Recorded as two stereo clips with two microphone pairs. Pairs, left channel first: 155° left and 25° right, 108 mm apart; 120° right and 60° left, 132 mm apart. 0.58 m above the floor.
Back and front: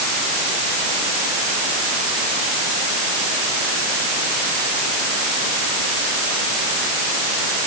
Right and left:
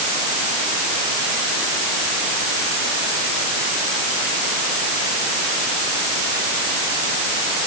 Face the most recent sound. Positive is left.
No sound to turn to.